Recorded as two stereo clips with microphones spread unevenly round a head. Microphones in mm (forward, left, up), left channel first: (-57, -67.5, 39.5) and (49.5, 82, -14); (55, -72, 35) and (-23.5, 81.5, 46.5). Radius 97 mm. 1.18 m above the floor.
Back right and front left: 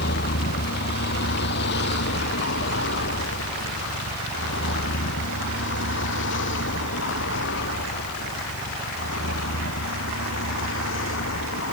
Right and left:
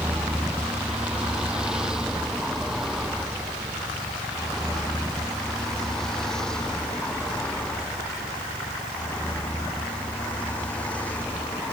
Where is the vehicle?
160° right; by 11.8 s 145° right.